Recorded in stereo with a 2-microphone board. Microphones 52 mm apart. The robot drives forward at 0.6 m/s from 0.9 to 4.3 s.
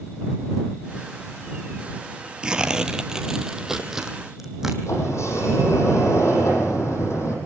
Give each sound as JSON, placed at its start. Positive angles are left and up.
{"t": 2.4, "sound": "tearing paper", "side_deg": -15, "distance_m": 1.0}
{"t": 4.9, "sound": "a sliding door", "side_deg": 65, "distance_m": 5.5}